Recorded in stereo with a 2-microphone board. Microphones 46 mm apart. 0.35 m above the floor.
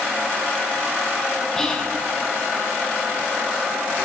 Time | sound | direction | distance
1.6 | whispering | 10° left (ahead or behind) | 3 m